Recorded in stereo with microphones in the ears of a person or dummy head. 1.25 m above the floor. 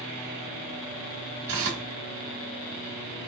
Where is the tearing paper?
60° right (ahead or behind), 1.4 m.